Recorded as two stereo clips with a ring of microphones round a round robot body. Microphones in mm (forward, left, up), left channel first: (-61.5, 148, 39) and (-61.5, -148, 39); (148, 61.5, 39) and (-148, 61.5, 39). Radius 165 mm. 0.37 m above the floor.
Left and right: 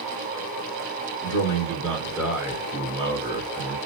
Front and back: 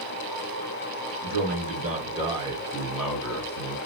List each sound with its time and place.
1.2 s a man speaking: 155° left, 1.4 m; by 3.8 s 70° right, 1.3 m